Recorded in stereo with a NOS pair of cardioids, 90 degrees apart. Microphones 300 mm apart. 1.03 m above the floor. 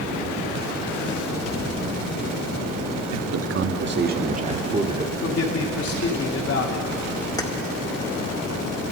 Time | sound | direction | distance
3.1 | a man speaking | 60° right | 1.2 m
5.2 | a man speaking | 50° left | 3.5 m
7.4 | keys jangling | 10° left | 1.7 m